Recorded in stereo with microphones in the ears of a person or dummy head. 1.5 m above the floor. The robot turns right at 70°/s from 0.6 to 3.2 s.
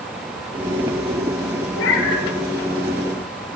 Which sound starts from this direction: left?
A cat meowing, at 1.8 s.